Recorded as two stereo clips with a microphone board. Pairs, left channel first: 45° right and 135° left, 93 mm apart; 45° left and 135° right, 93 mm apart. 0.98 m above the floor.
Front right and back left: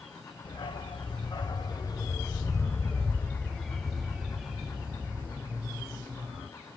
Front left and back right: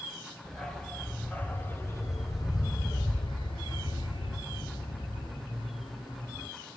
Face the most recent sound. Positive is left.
turn(degrees=70)